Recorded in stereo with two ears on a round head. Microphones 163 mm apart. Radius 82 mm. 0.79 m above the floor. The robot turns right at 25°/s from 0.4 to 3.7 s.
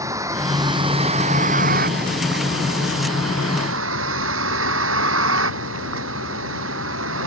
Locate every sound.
0.0 s a vehicle: 160° right; by 7.3 s 80° right